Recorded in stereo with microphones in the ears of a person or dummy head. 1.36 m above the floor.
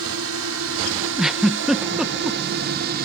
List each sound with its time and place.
0.0 s a drone: 75° right (ahead or behind); by 3.1 s 50° right (ahead or behind)
1.2 s a giggle: centre (ahead or behind)